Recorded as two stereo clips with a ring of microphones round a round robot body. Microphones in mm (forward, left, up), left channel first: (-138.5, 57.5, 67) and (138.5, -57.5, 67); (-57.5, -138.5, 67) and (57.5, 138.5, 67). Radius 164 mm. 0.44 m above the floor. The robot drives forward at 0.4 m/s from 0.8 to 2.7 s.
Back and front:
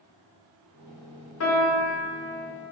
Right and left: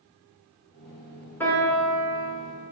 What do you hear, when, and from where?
1.4 s a piano: 165° left, 1.3 m; by 2.3 s 170° left, 1.6 m